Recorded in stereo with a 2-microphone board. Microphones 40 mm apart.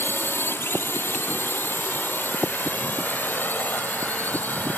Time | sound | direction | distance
0.0 | a drone | 75° left (ahead or behind) | ?